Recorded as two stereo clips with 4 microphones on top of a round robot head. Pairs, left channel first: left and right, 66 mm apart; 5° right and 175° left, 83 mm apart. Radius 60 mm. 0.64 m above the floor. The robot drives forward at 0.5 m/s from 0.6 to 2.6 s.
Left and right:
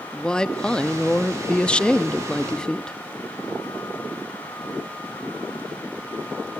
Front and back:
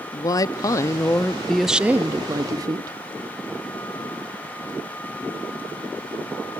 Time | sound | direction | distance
0.1 | a woman speaking | 15° left | 0.7 m